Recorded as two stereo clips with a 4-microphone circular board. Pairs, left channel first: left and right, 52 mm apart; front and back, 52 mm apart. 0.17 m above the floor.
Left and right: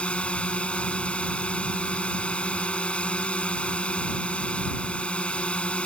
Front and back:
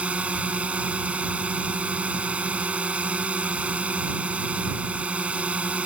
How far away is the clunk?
No clunk in this recording.